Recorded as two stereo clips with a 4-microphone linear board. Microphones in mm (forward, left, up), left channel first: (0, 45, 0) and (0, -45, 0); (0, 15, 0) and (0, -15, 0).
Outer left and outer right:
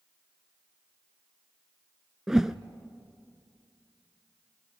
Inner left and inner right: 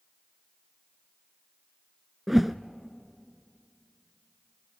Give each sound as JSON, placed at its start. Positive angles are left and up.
{"t": 2.3, "sound": "a whoosh", "side_deg": -5, "distance_m": 0.6}